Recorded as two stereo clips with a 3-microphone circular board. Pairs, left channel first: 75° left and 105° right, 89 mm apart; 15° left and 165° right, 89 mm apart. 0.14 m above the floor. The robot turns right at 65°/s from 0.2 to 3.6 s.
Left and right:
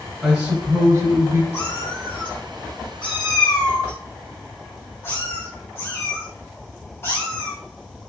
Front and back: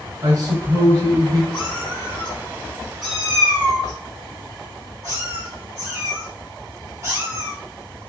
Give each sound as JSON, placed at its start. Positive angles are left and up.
{"t": 0.2, "sound": "a man speaking", "azimuth_deg": -170, "distance_m": 1.4}
{"t": 1.5, "sound": "a cat meowing", "azimuth_deg": 0, "distance_m": 1.9}